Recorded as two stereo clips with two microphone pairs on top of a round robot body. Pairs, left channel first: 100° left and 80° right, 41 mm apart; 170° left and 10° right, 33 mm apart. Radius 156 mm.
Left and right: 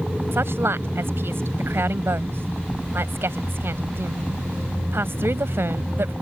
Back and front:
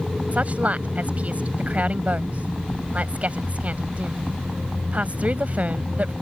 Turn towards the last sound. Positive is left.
turn(degrees=-60)